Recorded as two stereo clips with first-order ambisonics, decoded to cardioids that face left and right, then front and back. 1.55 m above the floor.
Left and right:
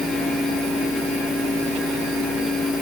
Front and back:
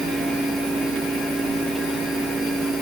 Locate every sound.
Only background noise.